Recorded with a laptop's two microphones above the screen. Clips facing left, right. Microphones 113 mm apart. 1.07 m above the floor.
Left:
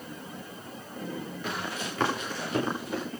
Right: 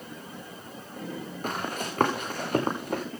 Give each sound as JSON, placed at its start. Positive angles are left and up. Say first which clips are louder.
{"t": 1.4, "sound": "running footsteps", "louder": "right 4 dB", "side_deg": -45, "distance_m": 5.5}